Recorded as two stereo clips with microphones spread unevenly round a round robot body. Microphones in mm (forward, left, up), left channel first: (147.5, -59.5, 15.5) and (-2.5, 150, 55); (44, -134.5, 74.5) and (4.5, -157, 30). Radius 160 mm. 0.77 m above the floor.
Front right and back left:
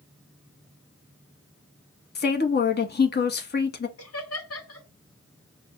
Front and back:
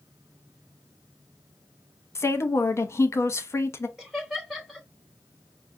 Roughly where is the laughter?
Right.